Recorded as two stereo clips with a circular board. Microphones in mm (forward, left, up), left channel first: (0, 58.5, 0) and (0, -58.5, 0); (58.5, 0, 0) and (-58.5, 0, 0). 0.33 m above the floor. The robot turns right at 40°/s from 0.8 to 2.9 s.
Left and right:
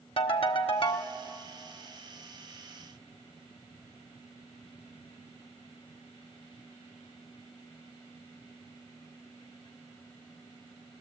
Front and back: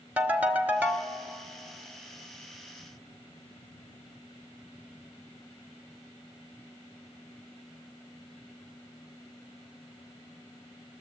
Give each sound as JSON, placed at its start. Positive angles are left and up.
{"t": 0.2, "sound": "a ringtone", "azimuth_deg": 105, "distance_m": 1.4}